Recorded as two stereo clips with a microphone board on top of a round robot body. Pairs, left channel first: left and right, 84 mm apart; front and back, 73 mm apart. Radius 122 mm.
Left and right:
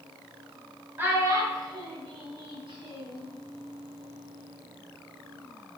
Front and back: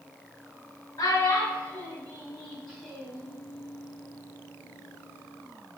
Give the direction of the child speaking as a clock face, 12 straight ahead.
1 o'clock.